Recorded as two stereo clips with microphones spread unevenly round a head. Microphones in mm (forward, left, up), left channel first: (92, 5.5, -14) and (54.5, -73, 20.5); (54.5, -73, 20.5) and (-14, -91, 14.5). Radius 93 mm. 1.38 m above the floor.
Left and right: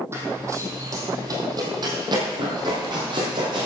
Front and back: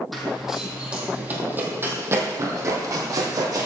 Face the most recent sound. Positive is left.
turn(degrees=-140)